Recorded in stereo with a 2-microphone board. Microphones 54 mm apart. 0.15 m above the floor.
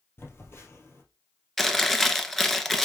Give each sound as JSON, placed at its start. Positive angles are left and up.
{"t": 0.2, "sound": "a phone buzzing", "side_deg": 45, "distance_m": 2.0}
{"t": 1.6, "sound": "chewing", "side_deg": 5, "distance_m": 1.0}